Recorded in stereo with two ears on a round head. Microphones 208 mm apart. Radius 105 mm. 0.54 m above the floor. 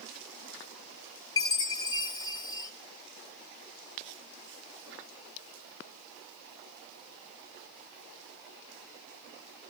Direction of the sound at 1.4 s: 20° left (ahead or behind).